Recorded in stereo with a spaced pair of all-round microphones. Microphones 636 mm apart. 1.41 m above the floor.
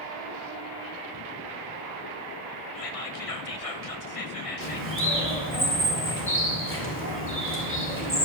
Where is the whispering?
60° left (ahead or behind), 0.9 m.